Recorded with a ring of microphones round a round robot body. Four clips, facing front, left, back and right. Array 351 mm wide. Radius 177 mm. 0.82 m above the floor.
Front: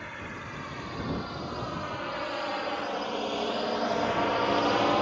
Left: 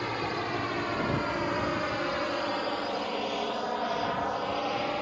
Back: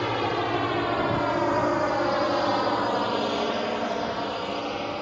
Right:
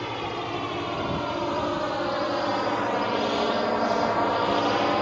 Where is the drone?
175° right; by 5.0 s 50° right.